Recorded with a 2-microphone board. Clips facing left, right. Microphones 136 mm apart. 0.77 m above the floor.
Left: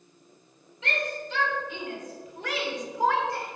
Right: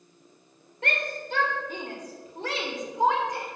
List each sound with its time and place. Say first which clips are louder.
0.8 s a shout: even; 55° right (ahead or behind), 2 m; by 3.5 s 15° right (ahead or behind), 1.8 m